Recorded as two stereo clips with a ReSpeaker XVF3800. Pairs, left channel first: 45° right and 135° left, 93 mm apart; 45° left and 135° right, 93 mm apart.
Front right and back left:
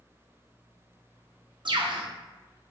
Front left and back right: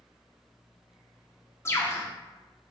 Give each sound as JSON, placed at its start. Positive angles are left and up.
{"t": 1.6, "sound": "a bird", "azimuth_deg": 105, "distance_m": 0.6}